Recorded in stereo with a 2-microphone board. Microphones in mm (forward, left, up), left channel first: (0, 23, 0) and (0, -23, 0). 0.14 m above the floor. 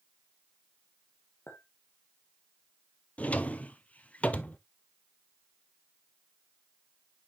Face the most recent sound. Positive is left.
turn(degrees=30)  # may be behind; listen again after turning